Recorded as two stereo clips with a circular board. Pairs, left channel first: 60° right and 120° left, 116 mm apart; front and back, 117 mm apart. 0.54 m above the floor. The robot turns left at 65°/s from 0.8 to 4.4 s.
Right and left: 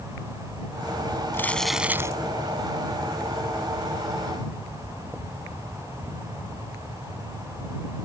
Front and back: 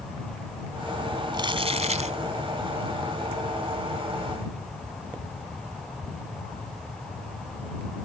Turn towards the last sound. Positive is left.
turn(degrees=35)